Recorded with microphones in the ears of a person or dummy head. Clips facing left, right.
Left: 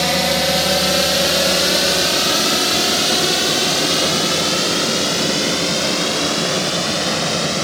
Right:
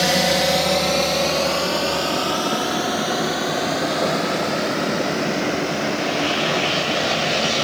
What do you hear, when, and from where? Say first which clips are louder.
0.0 s a drone: even; 10° right (ahead or behind); by 7.7 s 55° left (ahead or behind)